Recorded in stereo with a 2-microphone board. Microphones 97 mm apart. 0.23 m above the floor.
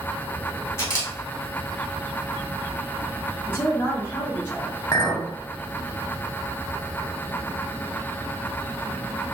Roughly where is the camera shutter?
Left.